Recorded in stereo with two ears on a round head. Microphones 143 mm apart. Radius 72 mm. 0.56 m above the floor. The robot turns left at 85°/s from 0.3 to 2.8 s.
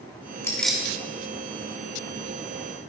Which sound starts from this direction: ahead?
Keys jangling, at 0.4 s.